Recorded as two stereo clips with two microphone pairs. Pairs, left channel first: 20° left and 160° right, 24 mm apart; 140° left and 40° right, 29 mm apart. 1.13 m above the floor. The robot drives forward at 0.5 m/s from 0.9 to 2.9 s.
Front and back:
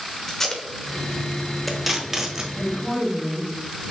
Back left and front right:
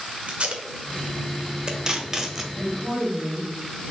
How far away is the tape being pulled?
About 1.0 m.